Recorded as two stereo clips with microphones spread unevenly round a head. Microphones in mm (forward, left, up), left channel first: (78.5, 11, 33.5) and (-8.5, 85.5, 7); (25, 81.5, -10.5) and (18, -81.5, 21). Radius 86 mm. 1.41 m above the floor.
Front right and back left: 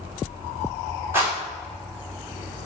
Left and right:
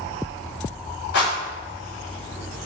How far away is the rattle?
About 1.8 m.